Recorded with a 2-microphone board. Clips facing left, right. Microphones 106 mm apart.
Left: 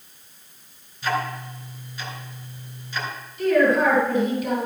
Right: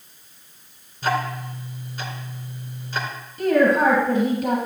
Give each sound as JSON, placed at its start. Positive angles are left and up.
{"t": 1.0, "sound": "ticking", "side_deg": -40, "distance_m": 2.0}
{"t": 3.4, "sound": "a woman speaking", "side_deg": -40, "distance_m": 2.5}